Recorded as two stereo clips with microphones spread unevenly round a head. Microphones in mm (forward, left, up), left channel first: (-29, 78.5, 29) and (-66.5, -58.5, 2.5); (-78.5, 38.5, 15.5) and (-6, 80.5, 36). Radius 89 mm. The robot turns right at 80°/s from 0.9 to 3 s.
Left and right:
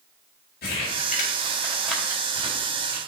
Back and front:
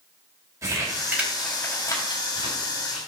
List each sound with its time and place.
0.6 s crumpling: 85° left, 2 m; by 3.0 s 110° right, 2 m